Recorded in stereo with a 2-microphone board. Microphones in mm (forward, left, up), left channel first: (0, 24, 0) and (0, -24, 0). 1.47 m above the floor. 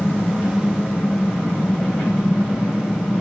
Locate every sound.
0.0 s an engine running: 30° left (ahead or behind), 4.5 m